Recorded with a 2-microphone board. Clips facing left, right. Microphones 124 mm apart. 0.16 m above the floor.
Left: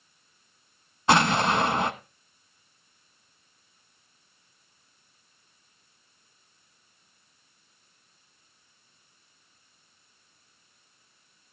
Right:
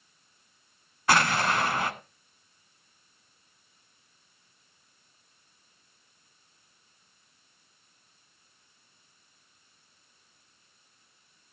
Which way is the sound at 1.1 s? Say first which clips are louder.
Left 3 dB; 25° left (ahead or behind).